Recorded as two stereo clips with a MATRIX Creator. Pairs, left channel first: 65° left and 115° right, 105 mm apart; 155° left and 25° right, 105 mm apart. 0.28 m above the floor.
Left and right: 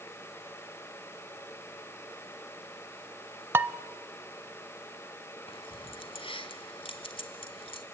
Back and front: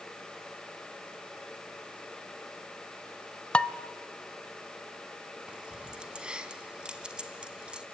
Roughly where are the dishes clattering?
Behind right.